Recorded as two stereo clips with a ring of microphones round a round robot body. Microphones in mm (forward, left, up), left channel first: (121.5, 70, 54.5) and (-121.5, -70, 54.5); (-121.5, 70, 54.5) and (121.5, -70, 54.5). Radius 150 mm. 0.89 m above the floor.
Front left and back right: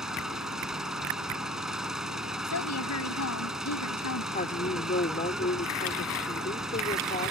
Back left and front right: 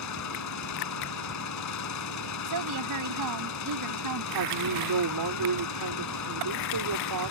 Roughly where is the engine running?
Behind left.